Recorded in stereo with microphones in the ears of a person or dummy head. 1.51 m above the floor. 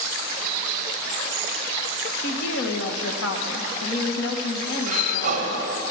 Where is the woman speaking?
65° left (ahead or behind), 1.5 m.